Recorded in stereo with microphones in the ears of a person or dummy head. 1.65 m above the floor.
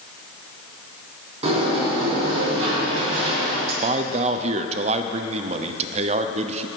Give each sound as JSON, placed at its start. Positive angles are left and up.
{"t": 1.4, "sound": "a sliding door", "side_deg": -40, "distance_m": 3.5}
{"t": 3.8, "sound": "a man speaking", "side_deg": -40, "distance_m": 0.6}